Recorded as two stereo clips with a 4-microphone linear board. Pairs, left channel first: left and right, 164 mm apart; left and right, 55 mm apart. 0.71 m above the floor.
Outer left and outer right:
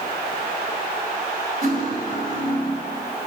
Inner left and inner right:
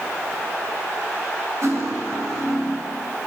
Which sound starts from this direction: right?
Cutlery clinking, at 1.6 s.